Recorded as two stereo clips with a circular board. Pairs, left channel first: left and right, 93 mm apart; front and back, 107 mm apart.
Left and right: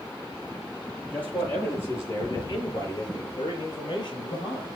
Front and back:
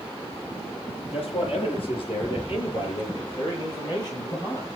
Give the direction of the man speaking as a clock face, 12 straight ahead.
11 o'clock.